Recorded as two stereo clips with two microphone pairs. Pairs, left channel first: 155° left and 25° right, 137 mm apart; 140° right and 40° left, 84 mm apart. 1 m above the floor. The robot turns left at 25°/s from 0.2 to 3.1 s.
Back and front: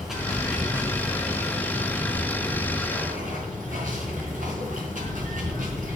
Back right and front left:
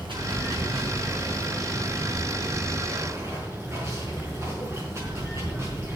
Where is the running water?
60° left, 4.5 m; by 6.0 s 10° right, 4.5 m.